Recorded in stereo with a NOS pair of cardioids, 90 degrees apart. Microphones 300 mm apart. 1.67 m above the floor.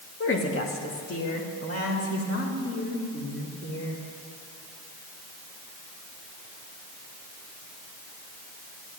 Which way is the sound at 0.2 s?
45° left.